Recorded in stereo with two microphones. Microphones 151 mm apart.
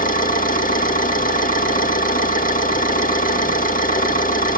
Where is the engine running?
70° left (ahead or behind), 1.7 m.